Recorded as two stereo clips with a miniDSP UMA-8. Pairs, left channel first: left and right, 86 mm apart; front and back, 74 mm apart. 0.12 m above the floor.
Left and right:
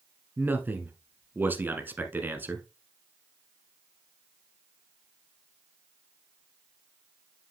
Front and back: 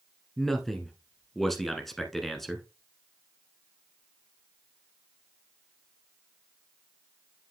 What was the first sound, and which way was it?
A man speaking, 80° right.